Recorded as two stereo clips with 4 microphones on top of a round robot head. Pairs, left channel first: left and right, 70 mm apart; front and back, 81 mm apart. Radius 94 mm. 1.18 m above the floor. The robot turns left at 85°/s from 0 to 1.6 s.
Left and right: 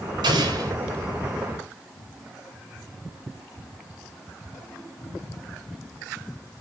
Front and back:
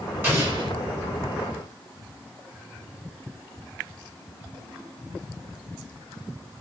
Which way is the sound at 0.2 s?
110° right.